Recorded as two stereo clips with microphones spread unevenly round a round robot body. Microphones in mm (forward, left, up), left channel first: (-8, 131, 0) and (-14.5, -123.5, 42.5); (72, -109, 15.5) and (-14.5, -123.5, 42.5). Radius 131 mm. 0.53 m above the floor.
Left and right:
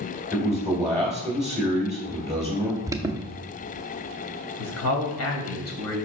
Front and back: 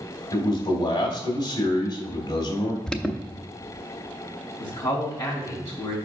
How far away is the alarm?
About 0.5 m.